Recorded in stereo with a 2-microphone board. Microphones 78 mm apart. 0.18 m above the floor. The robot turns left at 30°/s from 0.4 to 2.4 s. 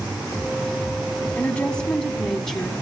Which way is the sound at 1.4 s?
15° left (ahead or behind).